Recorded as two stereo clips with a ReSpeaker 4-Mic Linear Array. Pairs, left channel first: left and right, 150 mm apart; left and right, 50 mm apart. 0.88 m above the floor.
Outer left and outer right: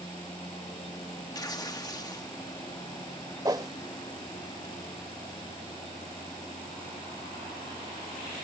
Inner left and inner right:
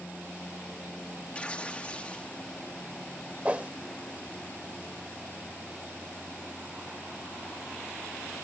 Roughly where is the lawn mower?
Left.